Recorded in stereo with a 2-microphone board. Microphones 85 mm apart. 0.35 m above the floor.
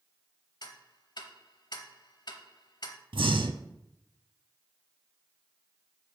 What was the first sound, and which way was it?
Ticking, 60° left (ahead or behind).